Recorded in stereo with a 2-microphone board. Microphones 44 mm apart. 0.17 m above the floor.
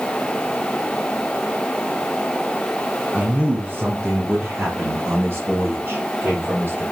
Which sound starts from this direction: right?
A man speaking, at 3.1 s.